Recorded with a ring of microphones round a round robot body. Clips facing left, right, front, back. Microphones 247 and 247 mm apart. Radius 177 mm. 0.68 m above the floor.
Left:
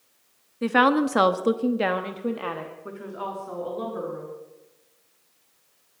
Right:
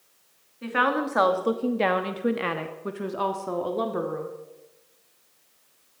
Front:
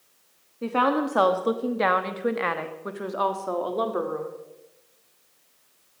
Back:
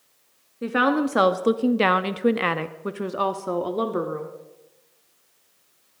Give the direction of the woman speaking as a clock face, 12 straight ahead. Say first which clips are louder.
Left 6 dB, back 3 dB; 8 o'clock.